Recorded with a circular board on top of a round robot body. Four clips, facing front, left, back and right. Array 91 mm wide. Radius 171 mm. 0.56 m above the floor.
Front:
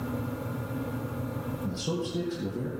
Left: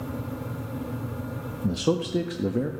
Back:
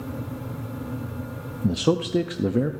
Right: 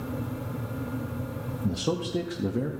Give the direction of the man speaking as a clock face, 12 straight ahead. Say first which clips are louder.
Left 4 dB, back 12 dB; 7 o'clock.